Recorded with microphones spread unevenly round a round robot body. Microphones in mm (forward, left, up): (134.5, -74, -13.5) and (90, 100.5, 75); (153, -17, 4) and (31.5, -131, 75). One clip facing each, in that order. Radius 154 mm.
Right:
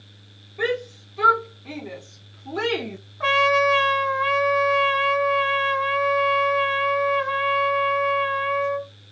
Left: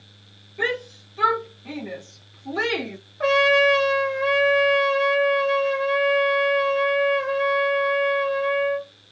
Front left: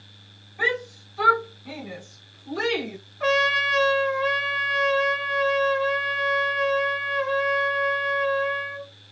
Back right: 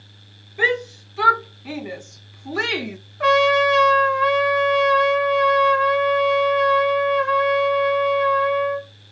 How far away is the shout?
About 2 m.